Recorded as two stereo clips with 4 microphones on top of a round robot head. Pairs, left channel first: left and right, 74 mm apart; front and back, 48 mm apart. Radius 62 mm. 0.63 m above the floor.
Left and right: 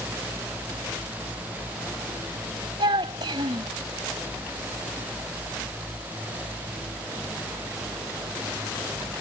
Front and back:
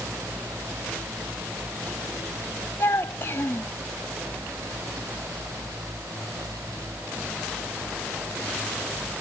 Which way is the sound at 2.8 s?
55° right.